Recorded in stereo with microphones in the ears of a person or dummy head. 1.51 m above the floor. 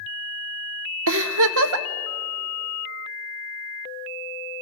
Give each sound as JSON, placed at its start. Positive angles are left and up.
{"t": 1.1, "sound": "a giggle", "side_deg": -70, "distance_m": 0.9}